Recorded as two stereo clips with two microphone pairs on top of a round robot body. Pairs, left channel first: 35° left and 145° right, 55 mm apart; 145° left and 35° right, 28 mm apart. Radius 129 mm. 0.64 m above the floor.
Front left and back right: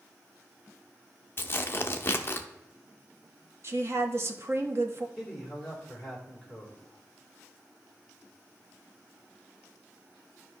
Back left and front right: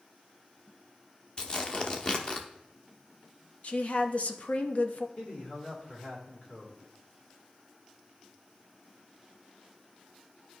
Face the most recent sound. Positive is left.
turn(degrees=115)